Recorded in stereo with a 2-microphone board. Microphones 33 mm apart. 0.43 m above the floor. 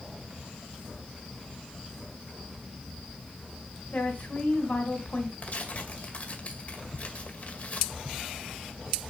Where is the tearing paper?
50° left (ahead or behind), 2 m.